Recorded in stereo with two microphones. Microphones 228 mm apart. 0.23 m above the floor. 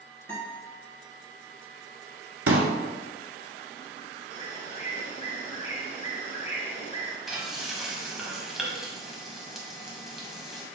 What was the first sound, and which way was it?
A guitar, 10° left (ahead or behind).